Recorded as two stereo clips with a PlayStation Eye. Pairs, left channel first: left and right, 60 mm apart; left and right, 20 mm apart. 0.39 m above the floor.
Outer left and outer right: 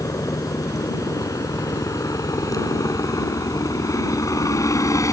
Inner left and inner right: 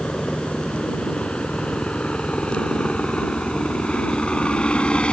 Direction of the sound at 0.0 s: 75° left (ahead or behind).